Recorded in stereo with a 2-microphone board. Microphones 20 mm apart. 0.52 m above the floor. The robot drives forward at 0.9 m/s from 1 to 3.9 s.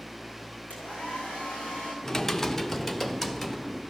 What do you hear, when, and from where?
0.7 s a hair dryer: 85° left, 7.5 m
2.0 s typing on a keyboard: 20° left (ahead or behind), 0.8 m; by 3.8 s 10° left (ahead or behind), 2 m